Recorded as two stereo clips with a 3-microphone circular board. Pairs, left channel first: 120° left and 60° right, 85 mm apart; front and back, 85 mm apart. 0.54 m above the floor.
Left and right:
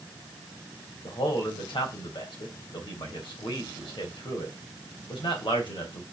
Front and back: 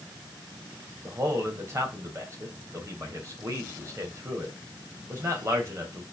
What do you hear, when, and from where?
1.0 s a man speaking: 125° left, 3 m